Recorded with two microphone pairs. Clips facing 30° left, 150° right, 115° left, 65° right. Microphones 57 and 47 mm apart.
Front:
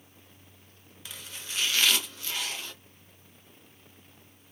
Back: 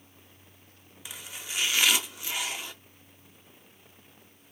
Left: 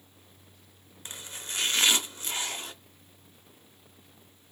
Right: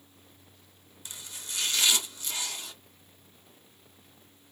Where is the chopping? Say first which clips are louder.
Back 1 dB, left 3 dB; 140° left, 0.8 m.